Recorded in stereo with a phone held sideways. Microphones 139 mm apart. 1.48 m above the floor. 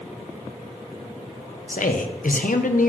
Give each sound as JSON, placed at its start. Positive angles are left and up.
{"t": 1.7, "sound": "a man speaking", "side_deg": 75, "distance_m": 0.7}